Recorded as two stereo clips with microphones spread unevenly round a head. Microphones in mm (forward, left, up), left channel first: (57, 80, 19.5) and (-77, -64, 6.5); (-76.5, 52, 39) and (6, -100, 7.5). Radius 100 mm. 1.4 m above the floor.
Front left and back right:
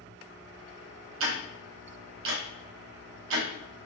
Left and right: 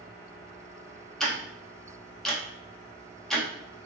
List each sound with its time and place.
1.2 s ticking: 155° right, 1.1 m